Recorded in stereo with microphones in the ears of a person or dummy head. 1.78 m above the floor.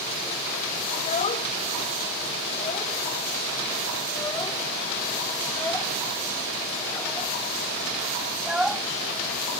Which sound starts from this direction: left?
A child speaking, at 0.9 s.